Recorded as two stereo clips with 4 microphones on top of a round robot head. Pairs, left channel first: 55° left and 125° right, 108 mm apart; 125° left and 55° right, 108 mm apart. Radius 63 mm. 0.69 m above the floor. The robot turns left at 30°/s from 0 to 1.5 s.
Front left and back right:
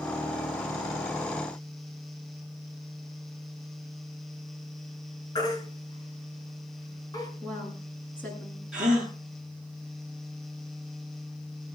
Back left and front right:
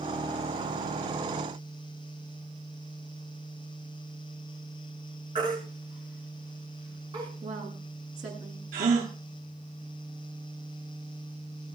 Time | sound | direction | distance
5.3 | a baby crying | straight ahead | 6 m
7.4 | a woman speaking | 25° right | 7.5 m
8.7 | a gasp | 45° right | 7.5 m